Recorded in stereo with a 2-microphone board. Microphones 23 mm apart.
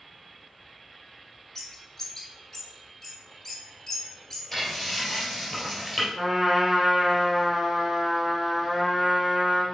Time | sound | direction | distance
1.6 | a bird | 20° left (ahead or behind) | 1.8 m
4.5 | frying | 10° left (ahead or behind) | 3.5 m
6.2 | a trumpet | 15° right (ahead or behind) | 2.5 m